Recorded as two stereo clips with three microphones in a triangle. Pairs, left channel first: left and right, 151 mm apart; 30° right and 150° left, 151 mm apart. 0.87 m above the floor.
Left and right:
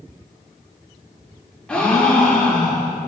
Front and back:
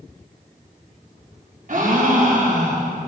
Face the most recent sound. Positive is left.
turn(degrees=175)